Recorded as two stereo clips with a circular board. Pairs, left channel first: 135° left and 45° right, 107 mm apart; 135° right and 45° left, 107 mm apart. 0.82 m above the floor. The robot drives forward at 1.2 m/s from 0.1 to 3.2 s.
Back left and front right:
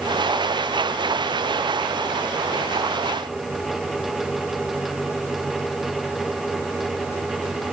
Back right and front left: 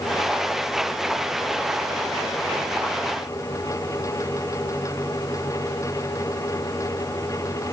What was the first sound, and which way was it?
Only background noise.